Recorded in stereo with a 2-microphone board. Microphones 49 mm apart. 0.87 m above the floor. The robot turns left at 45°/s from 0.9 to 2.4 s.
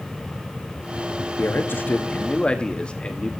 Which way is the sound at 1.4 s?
70° left.